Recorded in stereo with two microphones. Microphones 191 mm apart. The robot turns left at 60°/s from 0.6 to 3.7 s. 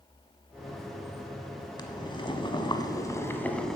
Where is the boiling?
25° left (ahead or behind), 1.1 m; by 3.8 s 5° left (ahead or behind), 1.1 m.